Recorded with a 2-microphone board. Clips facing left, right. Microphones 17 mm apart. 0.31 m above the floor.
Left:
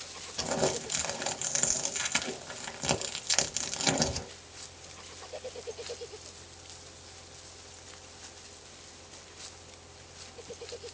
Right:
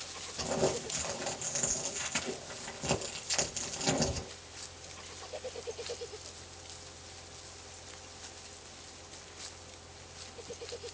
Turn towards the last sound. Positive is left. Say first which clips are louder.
# left 2 dB
turn(degrees=50)  # may be behind; listen again after turning